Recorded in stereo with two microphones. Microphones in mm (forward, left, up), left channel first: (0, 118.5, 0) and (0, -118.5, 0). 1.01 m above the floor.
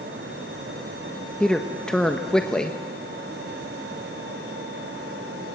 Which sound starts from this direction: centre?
A man speaking, at 1.4 s.